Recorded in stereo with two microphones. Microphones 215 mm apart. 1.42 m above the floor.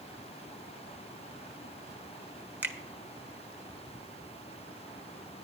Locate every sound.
2.6 s a finger snap: 10° right (ahead or behind), 1.0 m